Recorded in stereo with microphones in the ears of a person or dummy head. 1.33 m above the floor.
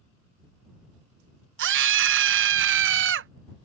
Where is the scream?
65° right (ahead or behind).